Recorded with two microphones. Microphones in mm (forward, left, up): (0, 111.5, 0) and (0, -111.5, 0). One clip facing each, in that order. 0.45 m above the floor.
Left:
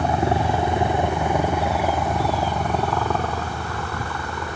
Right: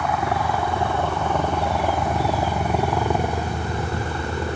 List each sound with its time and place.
0.0 s a helicopter: 30° left (ahead or behind); by 4.6 s 25° right (ahead or behind)